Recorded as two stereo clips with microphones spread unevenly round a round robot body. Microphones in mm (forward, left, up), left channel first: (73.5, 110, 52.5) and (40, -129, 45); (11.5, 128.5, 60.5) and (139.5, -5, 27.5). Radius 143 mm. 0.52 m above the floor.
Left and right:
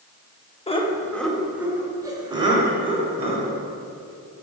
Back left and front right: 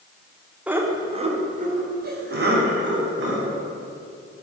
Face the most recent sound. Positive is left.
turn(degrees=-35)